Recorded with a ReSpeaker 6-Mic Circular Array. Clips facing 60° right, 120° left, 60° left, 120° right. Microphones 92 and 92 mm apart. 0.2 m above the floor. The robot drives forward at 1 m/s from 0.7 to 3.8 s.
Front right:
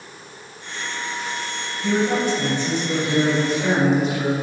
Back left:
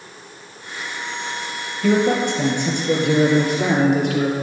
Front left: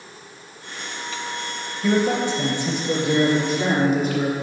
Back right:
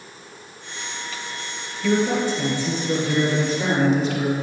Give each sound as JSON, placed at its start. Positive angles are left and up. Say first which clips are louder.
{"t": 1.8, "sound": "a man speaking", "louder": "back left 3 dB, even", "azimuth_deg": 125, "distance_m": 3.5}